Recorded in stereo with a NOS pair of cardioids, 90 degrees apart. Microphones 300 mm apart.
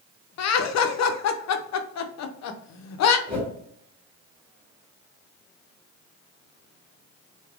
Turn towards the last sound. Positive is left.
turn(degrees=5)